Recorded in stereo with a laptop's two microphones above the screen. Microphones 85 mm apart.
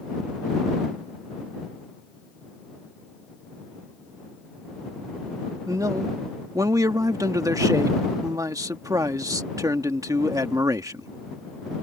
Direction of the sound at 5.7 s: 45° right (ahead or behind).